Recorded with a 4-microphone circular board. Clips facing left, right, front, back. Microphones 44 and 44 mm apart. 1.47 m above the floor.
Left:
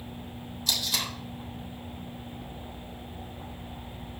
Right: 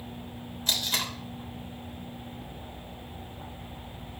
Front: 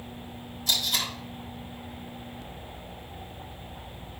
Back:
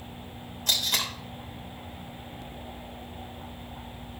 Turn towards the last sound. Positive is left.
turn(degrees=-145)